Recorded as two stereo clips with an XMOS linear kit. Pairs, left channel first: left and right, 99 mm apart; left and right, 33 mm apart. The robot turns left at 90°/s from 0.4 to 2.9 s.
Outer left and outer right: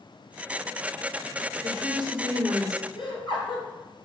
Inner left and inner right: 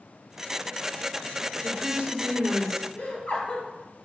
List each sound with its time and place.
1.6 s a woman speaking: 75° right, 3 m; by 2.9 s 175° left, 3 m
3.0 s laughter: 55° left (ahead or behind), 3.5 m